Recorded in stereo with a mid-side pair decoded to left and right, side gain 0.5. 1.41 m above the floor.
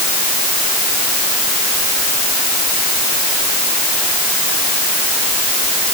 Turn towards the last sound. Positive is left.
No sound to turn to.